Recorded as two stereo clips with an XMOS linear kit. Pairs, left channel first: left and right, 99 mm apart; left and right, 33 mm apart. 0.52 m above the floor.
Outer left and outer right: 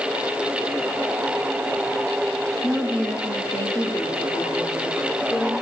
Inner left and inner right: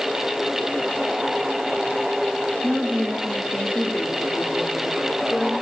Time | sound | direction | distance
2.6 | a woman speaking | 10° right (ahead or behind) | 1.1 m